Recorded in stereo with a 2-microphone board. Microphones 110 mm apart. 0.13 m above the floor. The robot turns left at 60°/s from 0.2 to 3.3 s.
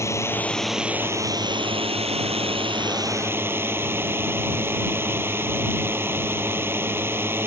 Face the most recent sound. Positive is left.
turn(degrees=-155)